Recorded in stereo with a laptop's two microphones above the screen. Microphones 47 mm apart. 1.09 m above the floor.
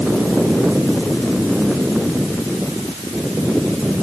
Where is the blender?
I don't hear a blender.